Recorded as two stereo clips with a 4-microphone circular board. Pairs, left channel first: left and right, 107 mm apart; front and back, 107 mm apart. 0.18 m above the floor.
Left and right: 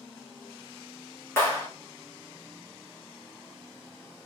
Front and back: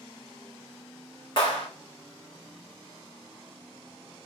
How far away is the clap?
About 1.8 m.